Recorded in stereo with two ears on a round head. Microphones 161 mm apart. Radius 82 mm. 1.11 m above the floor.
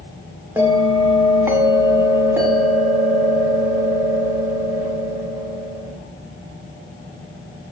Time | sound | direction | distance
0.6 | a bell | 15° right (ahead or behind) | 0.8 m